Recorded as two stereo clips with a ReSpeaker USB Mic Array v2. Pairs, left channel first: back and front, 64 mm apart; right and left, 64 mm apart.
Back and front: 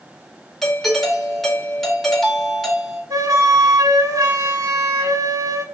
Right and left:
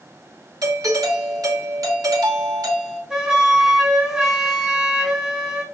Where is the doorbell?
95° left, 2.5 m.